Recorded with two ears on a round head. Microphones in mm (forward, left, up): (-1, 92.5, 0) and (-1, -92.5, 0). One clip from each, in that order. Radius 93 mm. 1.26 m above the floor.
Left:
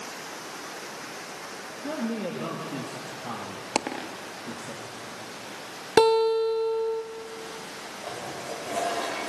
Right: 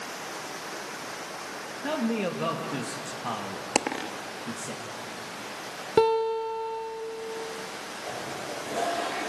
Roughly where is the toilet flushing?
Left.